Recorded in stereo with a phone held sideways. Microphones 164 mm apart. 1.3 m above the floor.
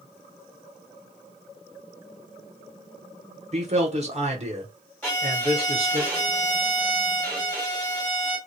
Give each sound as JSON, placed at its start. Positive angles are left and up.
{"t": 3.5, "sound": "a man speaking", "side_deg": -40, "distance_m": 0.8}
{"t": 5.0, "sound": "a violin", "side_deg": 10, "distance_m": 1.5}